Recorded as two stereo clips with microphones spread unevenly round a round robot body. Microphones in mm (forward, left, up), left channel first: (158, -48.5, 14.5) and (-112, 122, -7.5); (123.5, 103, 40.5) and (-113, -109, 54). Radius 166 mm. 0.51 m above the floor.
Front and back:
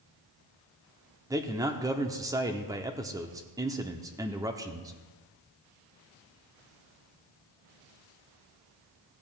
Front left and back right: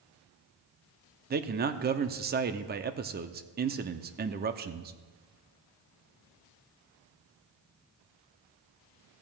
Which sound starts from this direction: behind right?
A man speaking, at 1.3 s.